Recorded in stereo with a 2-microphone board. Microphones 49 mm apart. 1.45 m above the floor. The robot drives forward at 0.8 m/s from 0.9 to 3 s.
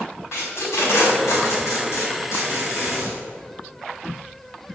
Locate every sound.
0.3 s tape being pulled: 75° left (ahead or behind), 4.5 m